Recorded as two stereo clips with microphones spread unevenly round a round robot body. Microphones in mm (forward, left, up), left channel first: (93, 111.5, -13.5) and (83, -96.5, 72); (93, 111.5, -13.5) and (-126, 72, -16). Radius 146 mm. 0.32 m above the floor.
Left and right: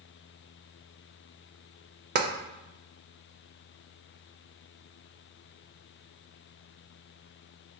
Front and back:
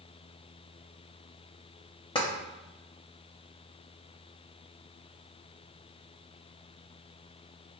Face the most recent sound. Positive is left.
turn(degrees=-45)